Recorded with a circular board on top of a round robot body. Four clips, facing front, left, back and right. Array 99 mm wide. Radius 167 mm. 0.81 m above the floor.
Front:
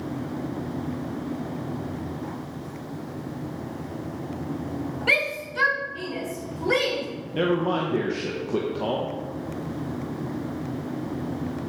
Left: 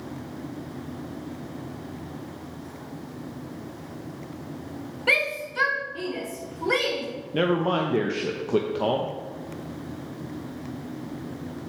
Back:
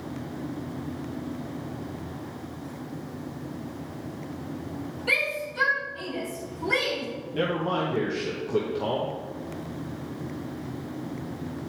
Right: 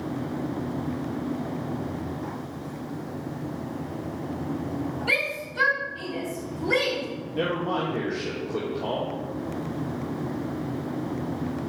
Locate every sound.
5.1 s a shout: 55° left, 2 m; by 7.0 s 60° left, 4.5 m
7.3 s a man speaking: 75° left, 1.0 m